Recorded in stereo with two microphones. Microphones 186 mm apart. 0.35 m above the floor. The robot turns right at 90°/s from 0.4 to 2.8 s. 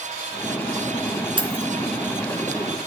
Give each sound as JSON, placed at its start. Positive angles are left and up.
{"t": 1.4, "sound": "keys jangling", "side_deg": -30, "distance_m": 3.0}